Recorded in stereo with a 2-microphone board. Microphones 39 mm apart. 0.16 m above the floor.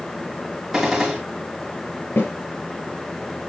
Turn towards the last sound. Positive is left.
turn(degrees=65)  # may be behind; listen again after turning